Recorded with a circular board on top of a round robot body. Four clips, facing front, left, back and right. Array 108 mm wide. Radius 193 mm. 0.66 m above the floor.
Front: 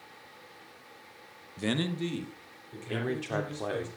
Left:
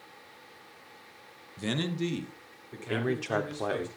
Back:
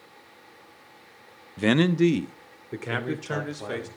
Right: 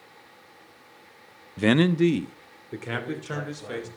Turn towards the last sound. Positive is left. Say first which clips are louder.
# left 3 dB, back 2 dB
turn(degrees=80)